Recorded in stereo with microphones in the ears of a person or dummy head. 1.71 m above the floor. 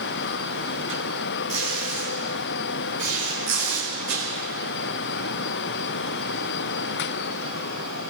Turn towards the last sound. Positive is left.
turn(degrees=-65)  # may be behind; listen again after turning